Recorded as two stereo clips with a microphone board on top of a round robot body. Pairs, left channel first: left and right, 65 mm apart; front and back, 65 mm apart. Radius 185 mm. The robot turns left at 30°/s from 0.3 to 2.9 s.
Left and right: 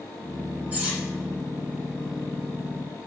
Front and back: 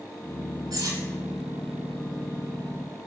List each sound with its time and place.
0.7 s cutlery clinking: 155° right, 1.0 m; by 1.0 s 160° right, 1.0 m